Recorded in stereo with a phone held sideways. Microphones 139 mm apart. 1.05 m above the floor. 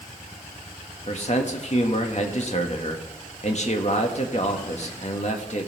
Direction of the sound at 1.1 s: 55° left (ahead or behind).